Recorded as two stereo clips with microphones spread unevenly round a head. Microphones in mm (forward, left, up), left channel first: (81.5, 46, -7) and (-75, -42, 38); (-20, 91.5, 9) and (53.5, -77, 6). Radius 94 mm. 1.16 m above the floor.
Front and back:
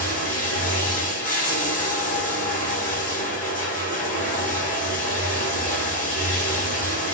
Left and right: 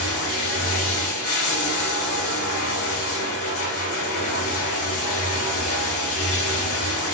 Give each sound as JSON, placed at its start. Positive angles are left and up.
{"t": 0.0, "sound": "running water", "azimuth_deg": 115, "distance_m": 1.8}